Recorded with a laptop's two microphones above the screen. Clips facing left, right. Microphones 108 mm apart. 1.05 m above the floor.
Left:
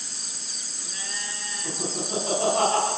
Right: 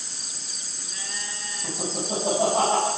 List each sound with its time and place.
1.6 s laughter: 45° right (ahead or behind), 5.5 m; by 2.9 s 40° right (ahead or behind), 5.5 m